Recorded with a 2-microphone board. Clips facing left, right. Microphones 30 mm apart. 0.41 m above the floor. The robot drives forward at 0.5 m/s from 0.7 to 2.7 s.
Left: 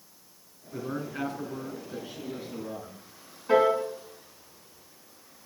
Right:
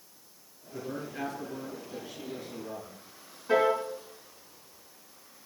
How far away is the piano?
About 4.5 m.